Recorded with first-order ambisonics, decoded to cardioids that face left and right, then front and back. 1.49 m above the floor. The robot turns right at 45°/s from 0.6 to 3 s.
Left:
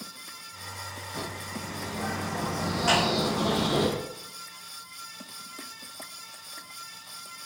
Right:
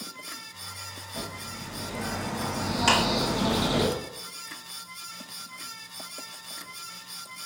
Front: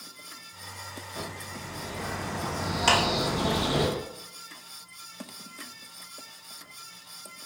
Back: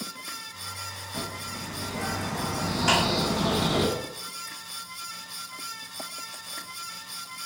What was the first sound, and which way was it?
A bird, 165° left.